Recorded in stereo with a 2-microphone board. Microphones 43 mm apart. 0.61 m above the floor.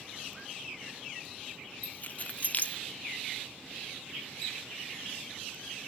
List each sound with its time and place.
1.8 s keys jangling: 40° left (ahead or behind), 1.0 m